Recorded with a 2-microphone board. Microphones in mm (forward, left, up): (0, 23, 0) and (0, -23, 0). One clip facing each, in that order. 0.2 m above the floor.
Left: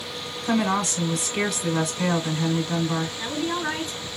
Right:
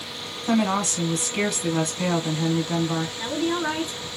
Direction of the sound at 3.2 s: 10° right (ahead or behind).